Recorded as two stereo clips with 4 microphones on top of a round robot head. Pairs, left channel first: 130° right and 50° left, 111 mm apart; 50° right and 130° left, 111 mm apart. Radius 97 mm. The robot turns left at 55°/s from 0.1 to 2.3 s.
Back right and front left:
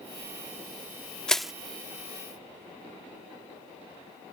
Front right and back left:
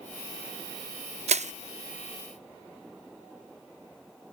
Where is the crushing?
150° left; by 1.5 s 135° left.